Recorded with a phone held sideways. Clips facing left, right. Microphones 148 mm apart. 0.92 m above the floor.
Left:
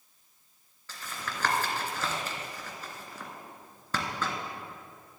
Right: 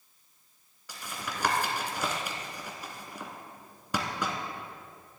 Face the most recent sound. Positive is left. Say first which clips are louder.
# right 1 dB
turn(degrees=-15)  # may be behind; listen again after turning